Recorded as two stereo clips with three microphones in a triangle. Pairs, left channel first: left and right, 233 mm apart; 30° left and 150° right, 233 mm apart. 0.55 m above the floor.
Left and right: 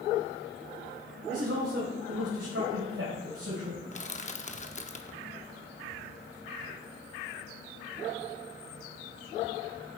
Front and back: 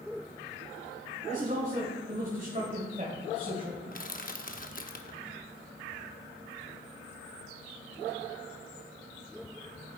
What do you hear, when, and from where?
1.3 s a man speaking: 95° right, 2.5 m
3.9 s crushing: 55° left, 0.7 m